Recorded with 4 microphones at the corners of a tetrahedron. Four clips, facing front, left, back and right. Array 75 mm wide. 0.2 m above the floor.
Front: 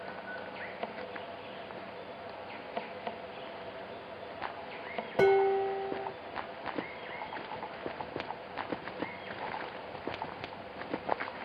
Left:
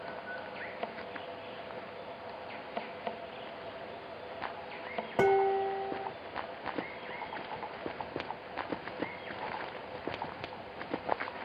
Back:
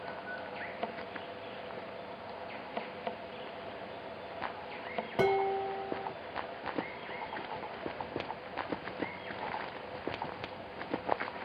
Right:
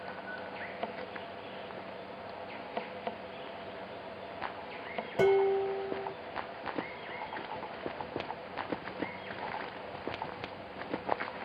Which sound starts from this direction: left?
Dishes clattering, at 5.2 s.